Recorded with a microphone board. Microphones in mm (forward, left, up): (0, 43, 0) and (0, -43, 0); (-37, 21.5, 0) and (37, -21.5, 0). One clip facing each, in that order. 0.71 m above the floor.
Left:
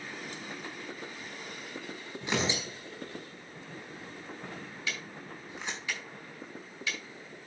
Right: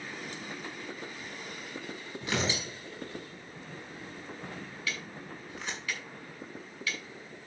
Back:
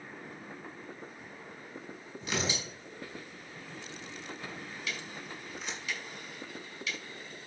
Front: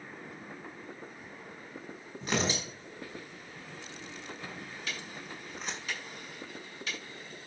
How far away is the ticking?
About 6.5 m.